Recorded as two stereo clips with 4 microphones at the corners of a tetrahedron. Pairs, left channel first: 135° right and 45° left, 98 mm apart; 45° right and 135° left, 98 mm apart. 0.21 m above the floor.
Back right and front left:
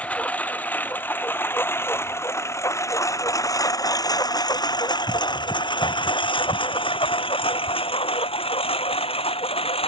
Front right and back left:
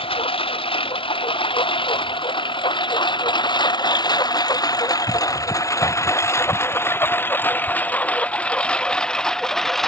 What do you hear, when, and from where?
0.0 s a lawn mower: 55° right; by 9.9 s 130° right